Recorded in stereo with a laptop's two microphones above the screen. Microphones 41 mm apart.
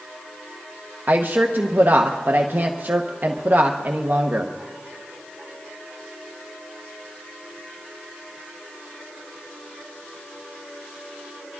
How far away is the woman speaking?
About 0.8 m.